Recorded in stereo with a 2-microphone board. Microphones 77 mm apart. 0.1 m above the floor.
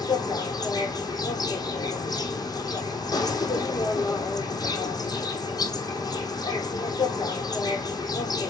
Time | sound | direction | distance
0.0 | an insect | 60° left (ahead or behind) | 1.8 m